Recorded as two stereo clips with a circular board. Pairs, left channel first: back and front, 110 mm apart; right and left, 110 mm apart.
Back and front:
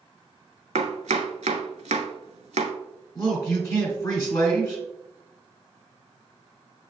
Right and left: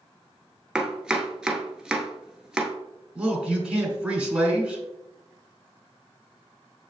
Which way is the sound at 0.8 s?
5° left.